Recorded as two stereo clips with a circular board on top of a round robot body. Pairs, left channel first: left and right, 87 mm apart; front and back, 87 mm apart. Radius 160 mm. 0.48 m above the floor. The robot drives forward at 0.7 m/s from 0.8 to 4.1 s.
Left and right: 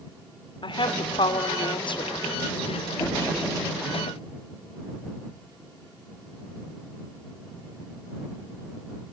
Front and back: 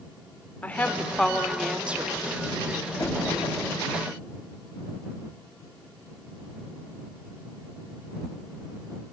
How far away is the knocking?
About 9.5 m.